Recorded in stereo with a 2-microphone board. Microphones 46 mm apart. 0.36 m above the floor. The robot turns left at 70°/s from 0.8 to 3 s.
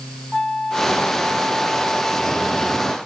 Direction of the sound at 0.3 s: 5° left (ahead or behind).